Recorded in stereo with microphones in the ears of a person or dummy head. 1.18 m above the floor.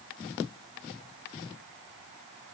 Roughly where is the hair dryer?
I don't hear a hair dryer.